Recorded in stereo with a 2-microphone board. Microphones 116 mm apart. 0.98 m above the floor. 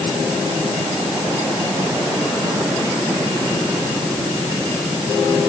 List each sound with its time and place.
Only background noise.